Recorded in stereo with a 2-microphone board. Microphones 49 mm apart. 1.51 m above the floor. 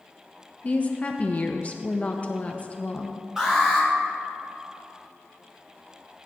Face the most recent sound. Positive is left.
turn(degrees=-10)  # may be behind; listen again after turning